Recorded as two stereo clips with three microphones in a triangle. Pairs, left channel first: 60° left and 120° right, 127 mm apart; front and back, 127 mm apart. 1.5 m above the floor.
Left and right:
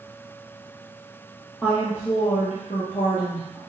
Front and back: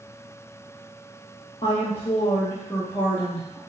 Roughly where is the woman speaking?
Ahead right.